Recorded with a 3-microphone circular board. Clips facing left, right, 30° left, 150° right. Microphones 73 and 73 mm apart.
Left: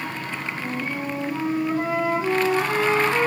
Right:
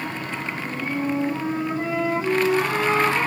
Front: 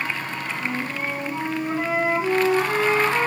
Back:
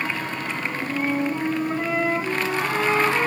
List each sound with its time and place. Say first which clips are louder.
0.6 s a flute: right 3 dB, back 3 dB; 85° left, 1.1 m